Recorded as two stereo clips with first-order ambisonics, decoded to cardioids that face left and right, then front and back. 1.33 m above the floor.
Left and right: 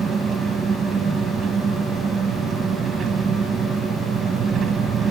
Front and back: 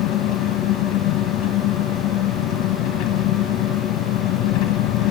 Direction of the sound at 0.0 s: 20° right.